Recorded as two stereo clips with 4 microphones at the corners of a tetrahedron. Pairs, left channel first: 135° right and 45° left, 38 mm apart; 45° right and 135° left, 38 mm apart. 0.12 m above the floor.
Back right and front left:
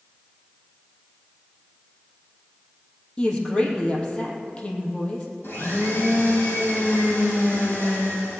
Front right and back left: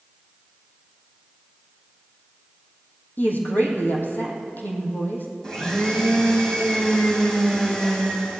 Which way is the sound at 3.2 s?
75° right.